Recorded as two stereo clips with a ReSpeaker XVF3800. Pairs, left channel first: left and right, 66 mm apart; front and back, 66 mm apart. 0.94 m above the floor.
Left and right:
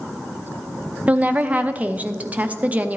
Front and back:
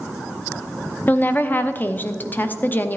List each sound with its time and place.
1.1 s a woman speaking: 40° right, 0.7 m